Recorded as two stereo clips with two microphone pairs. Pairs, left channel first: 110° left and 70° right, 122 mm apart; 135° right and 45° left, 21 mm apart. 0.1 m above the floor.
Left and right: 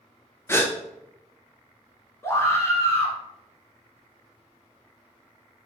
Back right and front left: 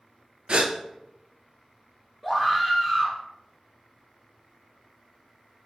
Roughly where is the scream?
Behind left.